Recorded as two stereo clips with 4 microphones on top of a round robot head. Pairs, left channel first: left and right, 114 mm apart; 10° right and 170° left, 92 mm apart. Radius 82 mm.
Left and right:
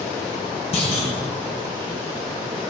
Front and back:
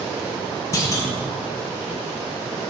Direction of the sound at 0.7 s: 45° left.